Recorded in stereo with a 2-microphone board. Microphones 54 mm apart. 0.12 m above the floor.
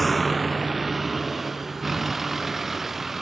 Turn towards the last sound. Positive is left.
turn(degrees=-5)  # may be behind; listen again after turning